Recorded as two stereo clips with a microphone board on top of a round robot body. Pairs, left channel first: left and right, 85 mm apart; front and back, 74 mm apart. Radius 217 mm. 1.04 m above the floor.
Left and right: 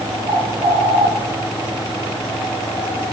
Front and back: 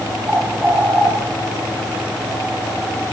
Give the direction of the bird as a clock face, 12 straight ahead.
4 o'clock.